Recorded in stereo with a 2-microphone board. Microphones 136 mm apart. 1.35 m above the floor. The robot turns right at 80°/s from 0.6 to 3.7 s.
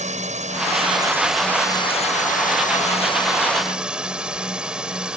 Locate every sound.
0.0 s a drone: 60° right; by 5.2 s 175° right